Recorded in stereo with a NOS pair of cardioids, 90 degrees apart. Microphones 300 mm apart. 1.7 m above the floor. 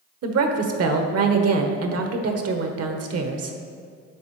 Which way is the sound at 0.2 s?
50° right.